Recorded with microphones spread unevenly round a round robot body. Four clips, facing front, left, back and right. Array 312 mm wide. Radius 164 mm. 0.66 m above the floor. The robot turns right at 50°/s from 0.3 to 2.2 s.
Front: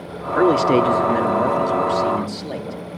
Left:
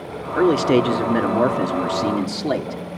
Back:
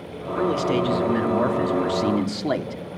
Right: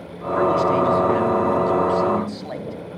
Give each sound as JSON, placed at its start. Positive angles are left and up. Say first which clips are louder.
{"t": 0.3, "sound": "a man speaking", "louder": "left 2 dB, front 7 dB", "azimuth_deg": 40, "distance_m": 2.0}